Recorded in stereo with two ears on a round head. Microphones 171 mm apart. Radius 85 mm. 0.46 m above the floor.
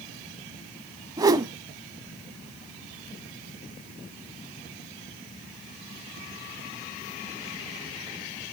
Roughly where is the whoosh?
Centre.